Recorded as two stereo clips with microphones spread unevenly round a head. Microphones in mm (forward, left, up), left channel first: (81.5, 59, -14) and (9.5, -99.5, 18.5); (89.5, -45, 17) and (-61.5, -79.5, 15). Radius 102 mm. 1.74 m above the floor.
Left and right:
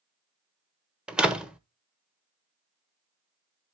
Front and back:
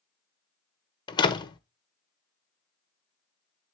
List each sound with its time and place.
1.1 s a door slam: 40° right, 1.1 m